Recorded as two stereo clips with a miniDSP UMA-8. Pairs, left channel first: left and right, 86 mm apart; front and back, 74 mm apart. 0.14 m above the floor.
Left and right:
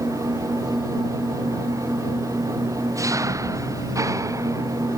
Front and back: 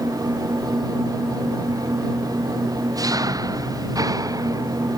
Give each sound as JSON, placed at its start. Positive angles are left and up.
{"t": 0.0, "sound": "an engine running", "azimuth_deg": -145}